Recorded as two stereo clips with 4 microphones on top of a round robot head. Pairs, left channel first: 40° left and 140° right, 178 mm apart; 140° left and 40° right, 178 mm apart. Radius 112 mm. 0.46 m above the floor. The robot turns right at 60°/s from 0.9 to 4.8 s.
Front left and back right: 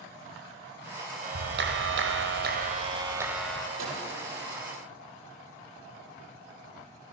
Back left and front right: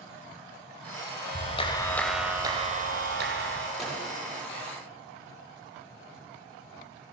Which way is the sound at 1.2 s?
175° left.